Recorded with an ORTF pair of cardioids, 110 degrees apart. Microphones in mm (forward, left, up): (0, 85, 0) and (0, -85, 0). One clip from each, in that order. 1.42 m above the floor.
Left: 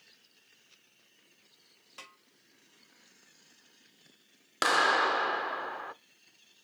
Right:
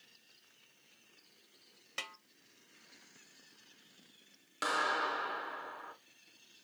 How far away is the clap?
About 0.5 m.